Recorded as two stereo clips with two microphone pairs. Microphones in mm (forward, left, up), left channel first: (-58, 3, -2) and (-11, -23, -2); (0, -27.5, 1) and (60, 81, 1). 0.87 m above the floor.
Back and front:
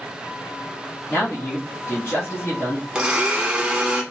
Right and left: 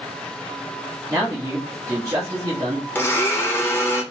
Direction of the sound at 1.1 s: 120° left.